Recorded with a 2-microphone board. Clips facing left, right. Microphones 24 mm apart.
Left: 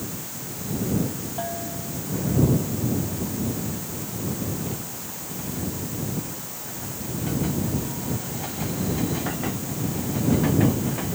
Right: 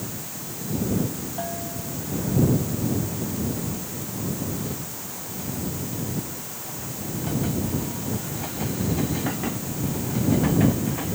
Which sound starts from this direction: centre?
A bell, at 1.4 s.